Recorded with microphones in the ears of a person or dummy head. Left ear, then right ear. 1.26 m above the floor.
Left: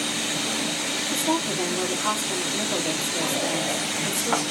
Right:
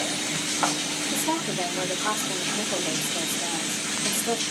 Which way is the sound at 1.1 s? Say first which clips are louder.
Left 2 dB; centre (ahead or behind).